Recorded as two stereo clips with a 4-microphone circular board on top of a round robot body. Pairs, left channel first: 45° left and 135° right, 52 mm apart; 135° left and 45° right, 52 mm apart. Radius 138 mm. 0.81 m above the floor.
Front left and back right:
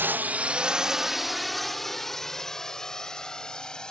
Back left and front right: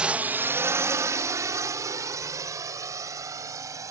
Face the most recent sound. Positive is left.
turn(degrees=-30)